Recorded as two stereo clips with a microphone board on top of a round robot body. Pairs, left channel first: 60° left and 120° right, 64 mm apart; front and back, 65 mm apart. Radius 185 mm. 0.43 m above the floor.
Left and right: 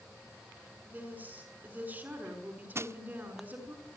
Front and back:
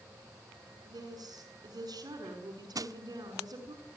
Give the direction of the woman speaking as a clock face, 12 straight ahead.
6 o'clock.